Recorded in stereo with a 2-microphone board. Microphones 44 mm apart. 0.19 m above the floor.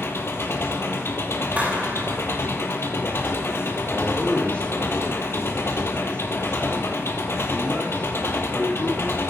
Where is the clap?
35° right (ahead or behind), 5 m.